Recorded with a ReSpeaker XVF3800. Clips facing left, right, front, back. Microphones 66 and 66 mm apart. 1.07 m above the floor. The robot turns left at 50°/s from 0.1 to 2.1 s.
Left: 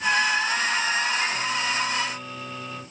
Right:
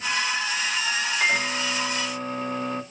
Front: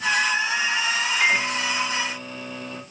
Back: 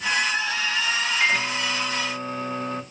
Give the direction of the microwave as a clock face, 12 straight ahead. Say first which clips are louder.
Right 2 dB, front 2 dB; 3 o'clock.